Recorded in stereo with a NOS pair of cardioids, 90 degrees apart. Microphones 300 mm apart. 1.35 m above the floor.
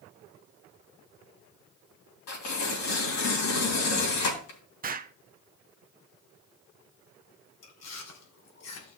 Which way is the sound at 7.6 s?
60° left.